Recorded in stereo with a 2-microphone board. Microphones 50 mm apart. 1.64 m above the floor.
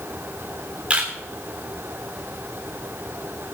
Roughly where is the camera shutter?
Right.